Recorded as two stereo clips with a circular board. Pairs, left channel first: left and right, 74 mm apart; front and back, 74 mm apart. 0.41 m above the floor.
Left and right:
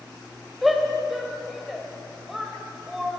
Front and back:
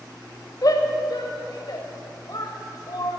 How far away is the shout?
About 1.5 m.